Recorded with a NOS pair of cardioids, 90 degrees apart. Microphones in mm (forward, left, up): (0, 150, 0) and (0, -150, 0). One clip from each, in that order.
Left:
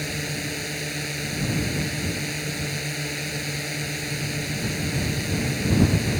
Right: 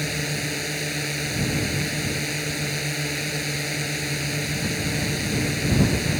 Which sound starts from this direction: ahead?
A drone, at 0.0 s.